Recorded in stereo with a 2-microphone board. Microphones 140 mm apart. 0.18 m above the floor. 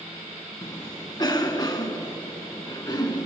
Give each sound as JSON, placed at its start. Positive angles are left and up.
{"t": 0.6, "sound": "a cough", "side_deg": 30, "distance_m": 1.5}